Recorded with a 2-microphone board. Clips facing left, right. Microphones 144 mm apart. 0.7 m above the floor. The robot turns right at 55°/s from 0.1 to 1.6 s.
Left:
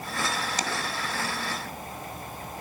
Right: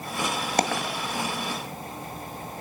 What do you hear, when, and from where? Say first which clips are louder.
0.6 s a dropped coin: right 6 dB; 60° right (ahead or behind), 2 m; by 1.0 s 85° right, 2 m